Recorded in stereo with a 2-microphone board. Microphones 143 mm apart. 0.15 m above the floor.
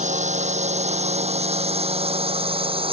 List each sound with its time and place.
0.0 s a drone: 50° right (ahead or behind); by 2.9 s 35° right (ahead or behind)